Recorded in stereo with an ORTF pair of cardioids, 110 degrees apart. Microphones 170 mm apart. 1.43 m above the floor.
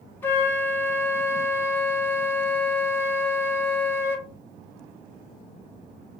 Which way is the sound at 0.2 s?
10° left.